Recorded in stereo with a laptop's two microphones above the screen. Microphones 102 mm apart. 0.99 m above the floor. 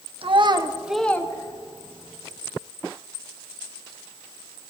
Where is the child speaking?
60° right (ahead or behind), 1.1 m; by 2.1 s 55° left (ahead or behind), 1.9 m.